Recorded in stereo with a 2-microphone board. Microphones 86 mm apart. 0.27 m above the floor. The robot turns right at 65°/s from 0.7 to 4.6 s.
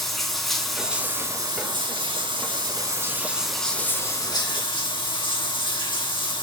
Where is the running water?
175° left, 2 m; by 6.4 s 70° left, 2 m.